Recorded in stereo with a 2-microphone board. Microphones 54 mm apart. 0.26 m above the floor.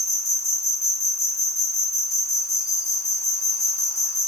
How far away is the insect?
About 0.8 m.